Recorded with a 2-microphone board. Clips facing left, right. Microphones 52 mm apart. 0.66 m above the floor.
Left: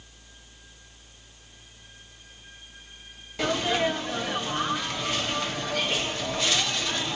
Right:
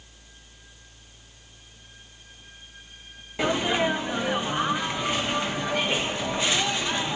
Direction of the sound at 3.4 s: 20° right (ahead or behind).